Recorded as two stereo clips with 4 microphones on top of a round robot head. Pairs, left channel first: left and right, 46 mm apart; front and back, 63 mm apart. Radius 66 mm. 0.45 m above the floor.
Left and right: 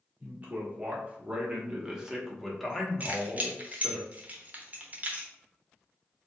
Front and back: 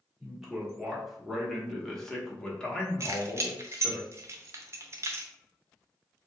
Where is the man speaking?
105° right, 1.8 m; by 4.0 s 45° left, 1.6 m.